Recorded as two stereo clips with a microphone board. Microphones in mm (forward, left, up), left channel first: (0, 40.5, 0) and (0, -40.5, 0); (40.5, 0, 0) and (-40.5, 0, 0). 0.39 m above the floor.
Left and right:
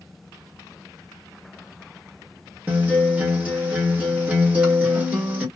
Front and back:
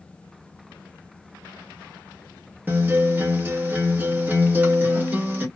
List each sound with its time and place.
2.7 s a guitar: 145° right, 1.4 m